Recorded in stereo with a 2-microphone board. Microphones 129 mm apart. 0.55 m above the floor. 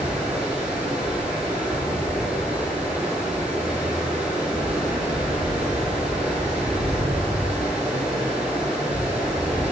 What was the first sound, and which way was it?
Running water, 5° right (ahead or behind).